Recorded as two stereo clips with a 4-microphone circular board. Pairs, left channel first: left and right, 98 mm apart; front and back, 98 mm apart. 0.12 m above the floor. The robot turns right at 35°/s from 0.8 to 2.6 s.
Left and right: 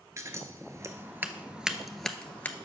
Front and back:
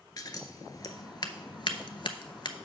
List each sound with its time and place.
0.2 s scissors: 40° right, 0.6 m; by 2.5 s 25° left, 0.6 m